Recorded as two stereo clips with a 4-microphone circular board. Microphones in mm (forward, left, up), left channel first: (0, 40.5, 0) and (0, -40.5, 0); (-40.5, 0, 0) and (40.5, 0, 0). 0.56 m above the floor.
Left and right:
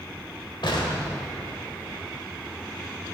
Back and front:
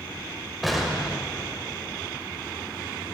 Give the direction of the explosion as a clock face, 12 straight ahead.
9 o'clock.